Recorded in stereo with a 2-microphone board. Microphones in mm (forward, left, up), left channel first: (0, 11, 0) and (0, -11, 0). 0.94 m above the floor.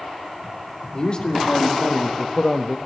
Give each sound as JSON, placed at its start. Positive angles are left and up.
{"t": 0.9, "sound": "a man speaking", "side_deg": 40, "distance_m": 1.6}